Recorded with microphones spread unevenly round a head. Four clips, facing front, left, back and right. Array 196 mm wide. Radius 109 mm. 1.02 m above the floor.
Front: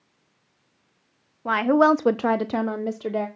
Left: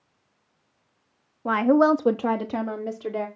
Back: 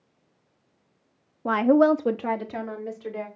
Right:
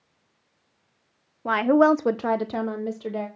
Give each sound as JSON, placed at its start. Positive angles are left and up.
{"t": 1.4, "sound": "a woman speaking", "azimuth_deg": -145, "distance_m": 0.6}